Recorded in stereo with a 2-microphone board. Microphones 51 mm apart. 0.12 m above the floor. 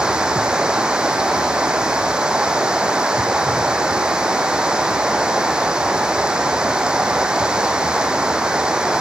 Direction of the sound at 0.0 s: 20° right (ahead or behind).